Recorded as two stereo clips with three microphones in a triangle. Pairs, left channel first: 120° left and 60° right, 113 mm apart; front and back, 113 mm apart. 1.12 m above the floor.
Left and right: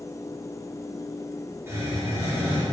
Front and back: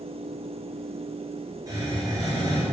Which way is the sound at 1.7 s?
125° right.